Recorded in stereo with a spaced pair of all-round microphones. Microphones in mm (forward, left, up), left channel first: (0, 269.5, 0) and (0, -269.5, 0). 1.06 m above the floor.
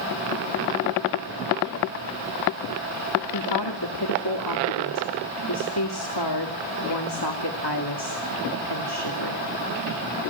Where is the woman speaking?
50° left (ahead or behind), 2.5 m.